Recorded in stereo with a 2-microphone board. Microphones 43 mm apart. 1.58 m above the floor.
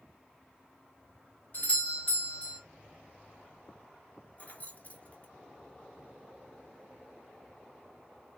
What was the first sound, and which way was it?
A doorbell, 45° left (ahead or behind).